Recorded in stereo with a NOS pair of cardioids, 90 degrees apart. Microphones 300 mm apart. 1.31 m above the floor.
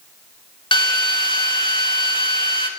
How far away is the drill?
About 2.5 m.